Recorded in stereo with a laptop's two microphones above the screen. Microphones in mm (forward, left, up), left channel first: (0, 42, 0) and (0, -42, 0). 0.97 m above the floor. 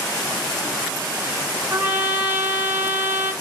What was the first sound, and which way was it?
A trumpet, 25° right (ahead or behind).